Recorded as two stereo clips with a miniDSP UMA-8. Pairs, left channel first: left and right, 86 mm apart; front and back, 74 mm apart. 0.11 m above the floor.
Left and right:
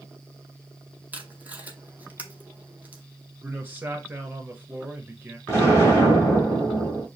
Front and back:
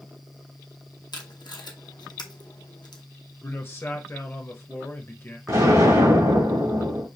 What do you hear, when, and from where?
1.1 s tape being pulled: 15° right, 0.8 m
3.4 s a man speaking: 35° right, 1.4 m
5.5 s an explosion: 155° left, 3 m